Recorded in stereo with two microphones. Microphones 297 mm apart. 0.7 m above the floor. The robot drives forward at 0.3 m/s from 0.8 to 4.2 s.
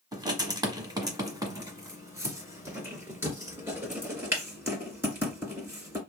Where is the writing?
15° right (ahead or behind), 1.3 m; by 6.0 s 5° right (ahead or behind), 2 m.